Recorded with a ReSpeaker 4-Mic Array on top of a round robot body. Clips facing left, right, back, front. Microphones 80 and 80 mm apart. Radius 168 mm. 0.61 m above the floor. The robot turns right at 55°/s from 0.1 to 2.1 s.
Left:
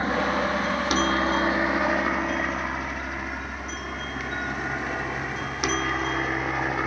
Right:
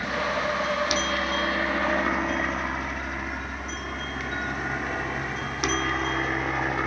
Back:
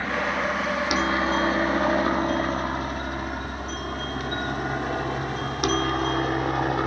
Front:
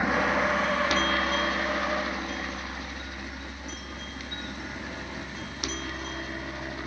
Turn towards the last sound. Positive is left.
turn(degrees=175)